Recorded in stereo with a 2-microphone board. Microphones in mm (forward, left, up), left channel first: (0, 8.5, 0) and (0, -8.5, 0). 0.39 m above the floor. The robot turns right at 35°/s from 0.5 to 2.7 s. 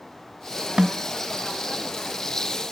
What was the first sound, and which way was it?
A snare drum, 45° right (ahead or behind).